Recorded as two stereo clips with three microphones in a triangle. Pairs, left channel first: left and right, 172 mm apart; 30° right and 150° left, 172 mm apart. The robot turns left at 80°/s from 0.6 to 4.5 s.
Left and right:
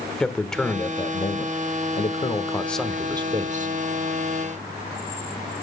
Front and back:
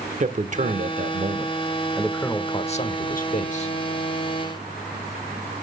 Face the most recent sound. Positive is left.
turn(degrees=-135)